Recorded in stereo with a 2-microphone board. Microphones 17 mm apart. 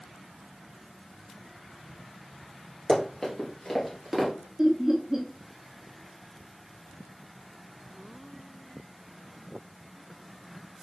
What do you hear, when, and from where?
2.9 s running footsteps: 50° left (ahead or behind), 2.5 m; by 4.3 s 5° right (ahead or behind), 1.9 m
4.6 s laughter: 25° right (ahead or behind), 0.9 m